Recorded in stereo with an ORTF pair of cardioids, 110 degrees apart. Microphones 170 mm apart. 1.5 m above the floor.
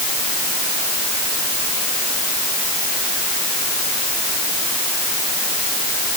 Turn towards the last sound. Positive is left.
No sound to turn to.